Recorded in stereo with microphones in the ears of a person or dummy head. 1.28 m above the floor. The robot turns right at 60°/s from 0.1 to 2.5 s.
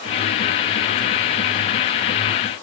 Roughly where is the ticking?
No ticking in this recording.